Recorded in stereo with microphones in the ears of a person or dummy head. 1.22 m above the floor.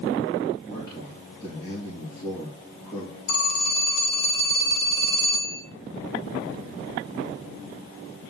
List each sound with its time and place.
0.7 s a man speaking: 15° left (ahead or behind), 3 m
3.3 s a phone ringing: 60° left (ahead or behind), 2 m